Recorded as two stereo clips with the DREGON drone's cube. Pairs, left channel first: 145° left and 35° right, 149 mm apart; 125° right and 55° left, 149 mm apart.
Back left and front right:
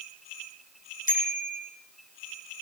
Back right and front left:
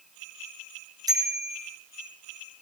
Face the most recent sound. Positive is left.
turn(degrees=120)